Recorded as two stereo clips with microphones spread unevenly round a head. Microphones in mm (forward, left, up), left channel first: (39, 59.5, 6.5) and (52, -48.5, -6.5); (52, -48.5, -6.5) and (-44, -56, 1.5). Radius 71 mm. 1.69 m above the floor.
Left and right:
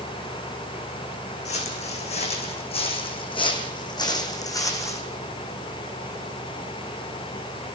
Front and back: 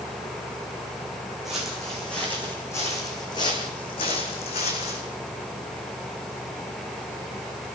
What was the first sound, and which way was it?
Footsteps, 100° left.